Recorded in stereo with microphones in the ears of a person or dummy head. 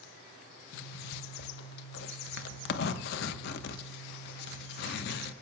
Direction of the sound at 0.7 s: 70° left (ahead or behind).